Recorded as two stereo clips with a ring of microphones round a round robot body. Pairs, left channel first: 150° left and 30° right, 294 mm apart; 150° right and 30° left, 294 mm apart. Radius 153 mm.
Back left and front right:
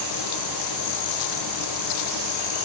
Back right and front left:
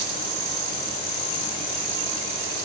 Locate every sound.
Only background noise.